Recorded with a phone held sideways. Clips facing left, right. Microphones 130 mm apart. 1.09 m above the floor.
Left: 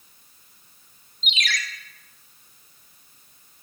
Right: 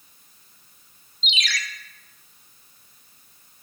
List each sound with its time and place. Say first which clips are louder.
1.2 s a ringtone: left 1 dB; 50° left (ahead or behind), 0.7 m